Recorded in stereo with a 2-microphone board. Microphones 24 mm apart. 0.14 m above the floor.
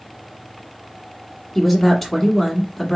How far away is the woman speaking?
About 1.2 m.